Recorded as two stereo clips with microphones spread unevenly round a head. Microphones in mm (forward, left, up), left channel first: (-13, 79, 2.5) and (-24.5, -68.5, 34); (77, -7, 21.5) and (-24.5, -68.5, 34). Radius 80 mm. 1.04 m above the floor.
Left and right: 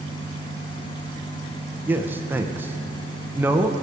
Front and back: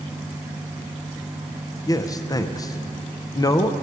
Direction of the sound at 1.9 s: 10° right.